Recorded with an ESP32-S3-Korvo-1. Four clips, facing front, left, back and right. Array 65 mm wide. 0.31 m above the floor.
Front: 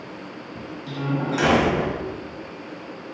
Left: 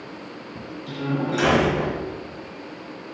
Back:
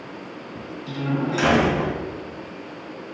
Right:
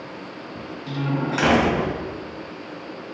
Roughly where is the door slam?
Right.